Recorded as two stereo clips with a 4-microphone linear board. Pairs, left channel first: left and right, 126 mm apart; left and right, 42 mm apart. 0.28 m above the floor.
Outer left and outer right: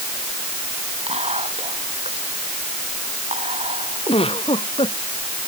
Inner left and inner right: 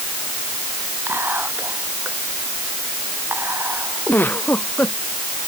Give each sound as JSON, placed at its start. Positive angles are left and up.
{"t": 1.1, "sound": "whispering", "side_deg": -55}
{"t": 4.1, "sound": "a giggle", "side_deg": 50}